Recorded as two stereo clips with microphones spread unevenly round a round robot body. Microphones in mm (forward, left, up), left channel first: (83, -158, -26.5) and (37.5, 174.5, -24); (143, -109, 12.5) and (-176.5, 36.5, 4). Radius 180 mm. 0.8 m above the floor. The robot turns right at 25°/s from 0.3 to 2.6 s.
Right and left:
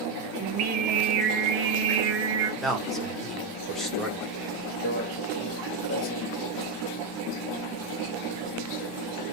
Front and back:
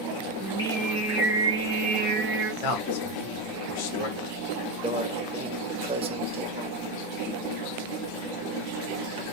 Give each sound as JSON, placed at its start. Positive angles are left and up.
{"t": 0.4, "sound": "singing", "azimuth_deg": 50, "distance_m": 1.2}
{"t": 2.6, "sound": "a man speaking", "azimuth_deg": 5, "distance_m": 1.5}
{"t": 4.8, "sound": "a microwave", "azimuth_deg": -140, "distance_m": 0.9}